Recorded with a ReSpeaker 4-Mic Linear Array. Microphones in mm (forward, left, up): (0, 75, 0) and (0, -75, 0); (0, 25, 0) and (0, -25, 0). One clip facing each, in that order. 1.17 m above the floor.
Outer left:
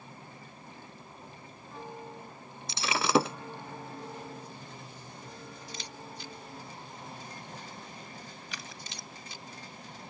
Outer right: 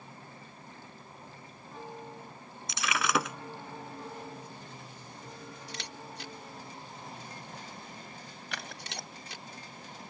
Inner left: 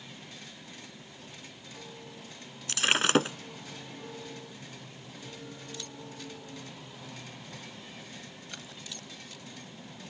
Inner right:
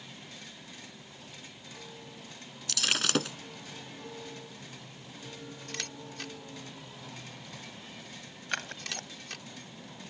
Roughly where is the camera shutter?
Right.